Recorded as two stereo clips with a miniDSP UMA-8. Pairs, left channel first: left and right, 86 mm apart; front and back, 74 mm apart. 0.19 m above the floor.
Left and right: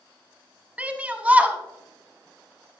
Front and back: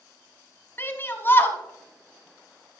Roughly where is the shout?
Ahead right.